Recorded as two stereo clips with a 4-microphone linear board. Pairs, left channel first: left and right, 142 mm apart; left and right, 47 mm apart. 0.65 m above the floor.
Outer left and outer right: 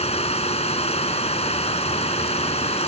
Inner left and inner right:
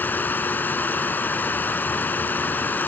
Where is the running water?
45° left (ahead or behind).